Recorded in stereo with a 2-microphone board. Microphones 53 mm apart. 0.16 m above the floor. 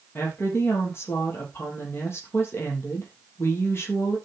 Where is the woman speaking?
50° left (ahead or behind), 4 m.